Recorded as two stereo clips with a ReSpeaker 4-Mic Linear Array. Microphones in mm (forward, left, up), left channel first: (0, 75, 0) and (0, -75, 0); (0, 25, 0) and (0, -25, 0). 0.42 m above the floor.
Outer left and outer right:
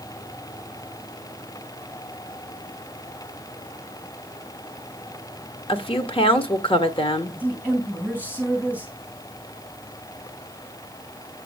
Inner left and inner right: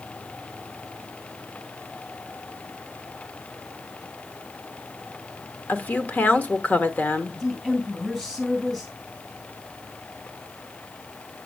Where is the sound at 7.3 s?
10° left (ahead or behind), 3.5 m.